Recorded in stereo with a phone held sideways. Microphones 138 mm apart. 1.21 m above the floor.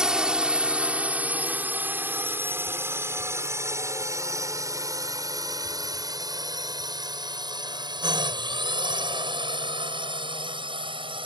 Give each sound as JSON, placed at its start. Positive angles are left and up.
{"t": 0.0, "sound": "a drone", "side_deg": -5}